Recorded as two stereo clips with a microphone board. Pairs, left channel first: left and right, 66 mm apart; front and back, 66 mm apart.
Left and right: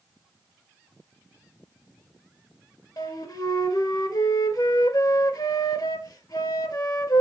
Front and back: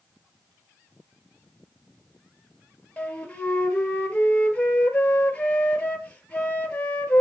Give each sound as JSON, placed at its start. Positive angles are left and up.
{"t": 3.0, "sound": "a flute", "azimuth_deg": 70, "distance_m": 1.5}